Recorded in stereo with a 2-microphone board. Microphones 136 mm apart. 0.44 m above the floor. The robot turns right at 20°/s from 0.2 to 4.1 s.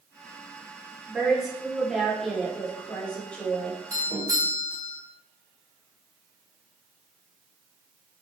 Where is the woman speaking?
5° right (ahead or behind), 1.0 m; by 3.8 s 10° left (ahead or behind), 1.0 m.